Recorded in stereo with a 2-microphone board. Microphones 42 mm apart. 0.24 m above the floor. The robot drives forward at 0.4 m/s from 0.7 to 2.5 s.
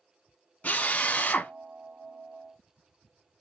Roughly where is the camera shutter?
No camera shutter in this recording.